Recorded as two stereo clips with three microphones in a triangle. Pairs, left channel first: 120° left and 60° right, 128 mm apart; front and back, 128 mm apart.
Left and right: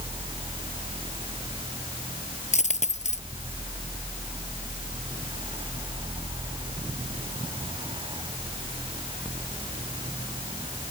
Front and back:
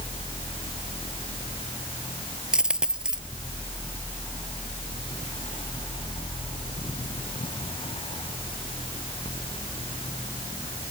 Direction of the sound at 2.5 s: 95° left.